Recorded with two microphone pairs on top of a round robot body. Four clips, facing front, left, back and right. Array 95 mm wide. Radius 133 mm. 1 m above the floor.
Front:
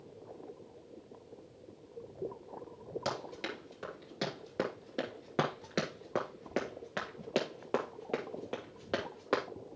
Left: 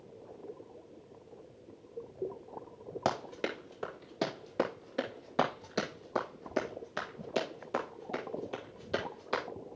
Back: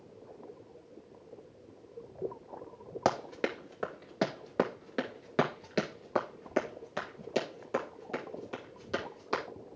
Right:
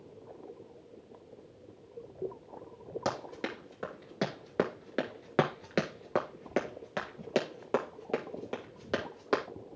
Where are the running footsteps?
170° left, 1.4 m; by 9.4 s 50° right, 3 m.